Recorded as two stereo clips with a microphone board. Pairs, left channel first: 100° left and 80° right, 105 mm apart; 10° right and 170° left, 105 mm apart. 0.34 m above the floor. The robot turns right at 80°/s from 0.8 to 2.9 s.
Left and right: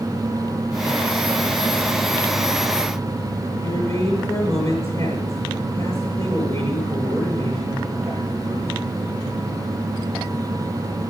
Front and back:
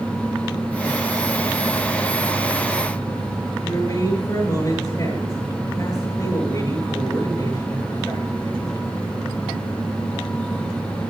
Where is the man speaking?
45° left, 7.5 m.